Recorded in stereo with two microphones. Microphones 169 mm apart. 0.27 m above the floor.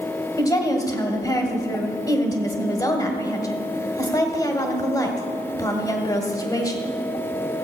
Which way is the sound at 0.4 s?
20° left (ahead or behind).